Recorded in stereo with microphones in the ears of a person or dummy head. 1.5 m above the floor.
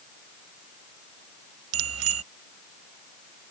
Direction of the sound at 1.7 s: 85° right.